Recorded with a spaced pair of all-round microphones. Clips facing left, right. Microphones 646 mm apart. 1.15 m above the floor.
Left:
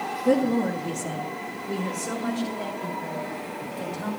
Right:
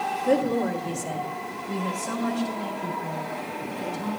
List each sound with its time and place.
0.2 s a woman speaking: 60° left (ahead or behind), 1.9 m; by 4.1 s 85° left, 7 m